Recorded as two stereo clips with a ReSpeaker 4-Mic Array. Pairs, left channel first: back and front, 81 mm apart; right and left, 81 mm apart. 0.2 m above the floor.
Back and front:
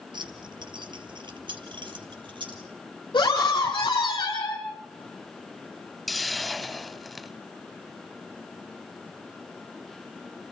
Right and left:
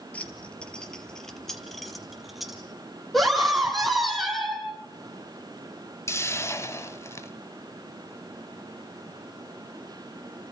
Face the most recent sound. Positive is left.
turn(degrees=-90)